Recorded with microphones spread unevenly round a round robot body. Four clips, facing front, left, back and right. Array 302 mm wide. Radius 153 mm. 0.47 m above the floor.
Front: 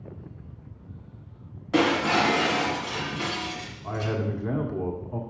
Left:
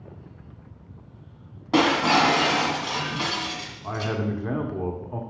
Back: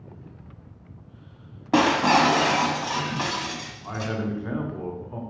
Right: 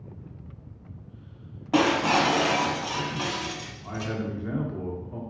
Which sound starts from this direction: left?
A man speaking, at 3.8 s.